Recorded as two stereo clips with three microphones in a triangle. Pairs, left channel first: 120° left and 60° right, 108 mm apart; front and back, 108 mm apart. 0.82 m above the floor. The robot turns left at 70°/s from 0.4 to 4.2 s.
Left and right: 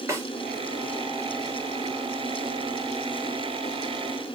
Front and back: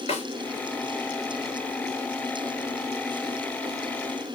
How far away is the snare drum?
About 3 m.